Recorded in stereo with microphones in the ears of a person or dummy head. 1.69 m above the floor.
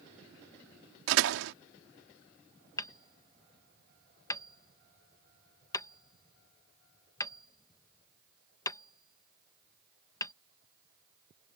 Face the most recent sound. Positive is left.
turn(degrees=20)  # may be behind; listen again after turning